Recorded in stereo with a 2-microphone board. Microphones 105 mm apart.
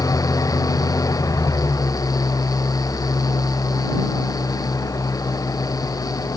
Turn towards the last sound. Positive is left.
turn(degrees=35)  # may be behind; listen again after turning